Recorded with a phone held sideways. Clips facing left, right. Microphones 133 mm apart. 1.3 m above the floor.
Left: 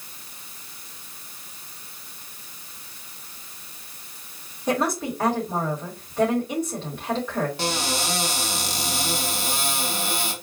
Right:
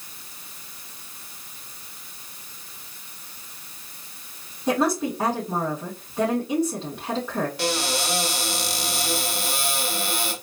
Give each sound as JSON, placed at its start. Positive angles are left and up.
{"t": 4.7, "sound": "a woman speaking", "side_deg": -15, "distance_m": 3.0}
{"t": 7.6, "sound": "a cupboard door", "side_deg": 25, "distance_m": 1.6}